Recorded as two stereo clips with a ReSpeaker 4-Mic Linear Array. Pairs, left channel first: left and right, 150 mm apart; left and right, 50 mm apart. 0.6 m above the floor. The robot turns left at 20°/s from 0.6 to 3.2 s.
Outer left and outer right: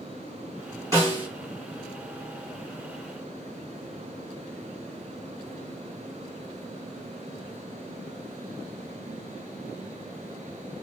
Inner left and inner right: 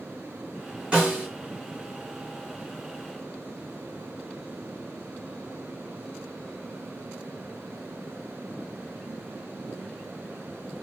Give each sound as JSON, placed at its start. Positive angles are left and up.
{"t": 0.9, "sound": "a snare drum", "side_deg": -25, "distance_m": 6.5}